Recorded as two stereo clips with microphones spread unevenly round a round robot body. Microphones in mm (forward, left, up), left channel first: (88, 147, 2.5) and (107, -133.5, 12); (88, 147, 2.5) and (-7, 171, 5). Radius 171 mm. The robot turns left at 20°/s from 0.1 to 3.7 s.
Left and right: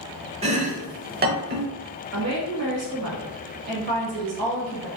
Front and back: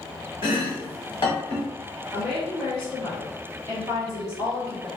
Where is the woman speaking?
70° right, 1.3 m; by 4.9 s 100° right, 1.3 m.